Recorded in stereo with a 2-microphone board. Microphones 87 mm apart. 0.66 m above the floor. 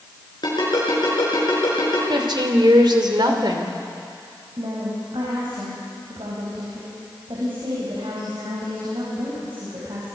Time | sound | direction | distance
0.4 | a ringtone | 55° left (ahead or behind) | 7 m
2.1 | a woman speaking | 60° right (ahead or behind) | 2.5 m
4.6 | a woman speaking | 75° right (ahead or behind) | 4.5 m